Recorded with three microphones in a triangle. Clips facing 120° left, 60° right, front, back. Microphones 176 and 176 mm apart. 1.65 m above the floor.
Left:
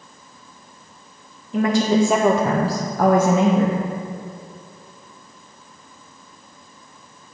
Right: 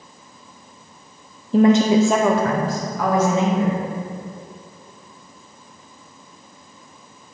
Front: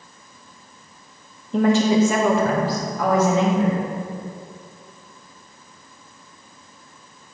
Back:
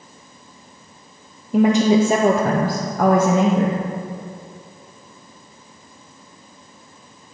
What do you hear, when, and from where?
1.5 s a woman speaking: 100° right, 0.5 m; by 3.8 s 145° left, 1.1 m